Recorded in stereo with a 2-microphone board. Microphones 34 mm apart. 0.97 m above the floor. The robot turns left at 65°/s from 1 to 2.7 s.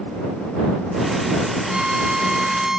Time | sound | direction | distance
1.7 | a violin | 25° right (ahead or behind) | ?